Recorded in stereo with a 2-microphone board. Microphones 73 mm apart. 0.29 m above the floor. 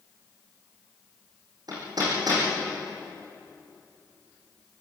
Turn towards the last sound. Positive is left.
turn(degrees=-60)  # may be behind; listen again after turning